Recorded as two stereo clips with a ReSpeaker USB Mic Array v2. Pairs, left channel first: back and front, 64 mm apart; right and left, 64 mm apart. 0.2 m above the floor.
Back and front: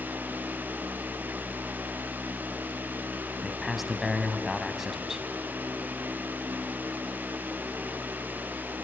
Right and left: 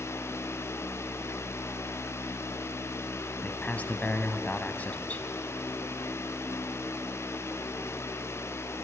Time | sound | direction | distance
3.4 | a man speaking | 80° right | 1.1 m